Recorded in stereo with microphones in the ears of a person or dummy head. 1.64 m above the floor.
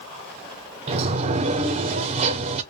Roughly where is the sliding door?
Right.